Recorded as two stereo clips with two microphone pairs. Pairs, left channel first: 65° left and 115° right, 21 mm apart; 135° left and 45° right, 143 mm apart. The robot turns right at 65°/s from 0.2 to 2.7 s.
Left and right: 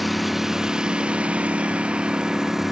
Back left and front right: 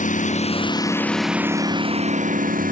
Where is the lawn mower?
160° left; by 2.7 s 40° right.